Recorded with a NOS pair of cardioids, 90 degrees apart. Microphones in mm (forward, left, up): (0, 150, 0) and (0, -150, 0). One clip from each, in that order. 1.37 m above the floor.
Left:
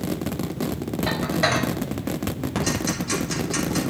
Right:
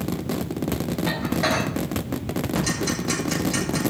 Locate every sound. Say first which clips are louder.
1.1 s dishes clattering: left 2 dB; 30° left, 5.5 m
2.5 s ticking: left 1 dB; 5° left, 7.5 m